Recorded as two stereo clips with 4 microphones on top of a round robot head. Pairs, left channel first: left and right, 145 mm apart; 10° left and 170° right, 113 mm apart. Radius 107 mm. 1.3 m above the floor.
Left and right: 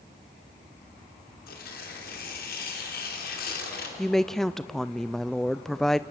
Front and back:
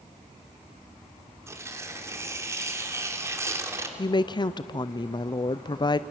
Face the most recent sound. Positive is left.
turn(degrees=5)